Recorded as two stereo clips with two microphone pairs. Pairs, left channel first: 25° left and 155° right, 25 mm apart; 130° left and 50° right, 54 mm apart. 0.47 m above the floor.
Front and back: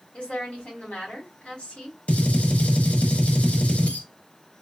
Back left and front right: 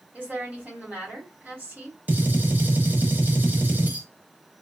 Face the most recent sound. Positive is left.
turn(degrees=10)